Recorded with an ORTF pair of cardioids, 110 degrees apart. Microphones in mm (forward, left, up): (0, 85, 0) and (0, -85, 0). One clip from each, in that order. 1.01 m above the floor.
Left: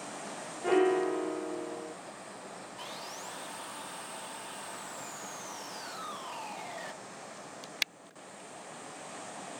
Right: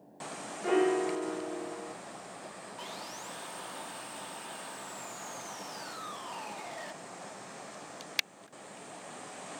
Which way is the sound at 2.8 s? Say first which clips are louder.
Even; 5° left.